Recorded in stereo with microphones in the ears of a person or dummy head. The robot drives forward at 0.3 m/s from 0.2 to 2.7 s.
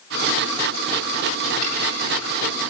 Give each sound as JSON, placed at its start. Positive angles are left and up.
{"t": 1.6, "sound": "a snare drum", "side_deg": -55, "distance_m": 7.5}